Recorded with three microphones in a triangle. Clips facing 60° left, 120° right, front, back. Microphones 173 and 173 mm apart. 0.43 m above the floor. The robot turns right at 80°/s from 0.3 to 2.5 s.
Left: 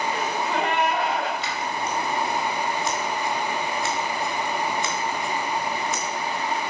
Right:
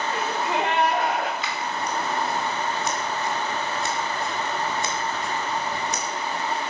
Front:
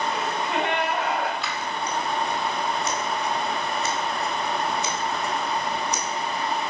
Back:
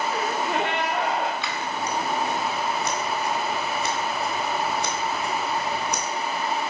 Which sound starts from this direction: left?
Scissors, at 1.4 s.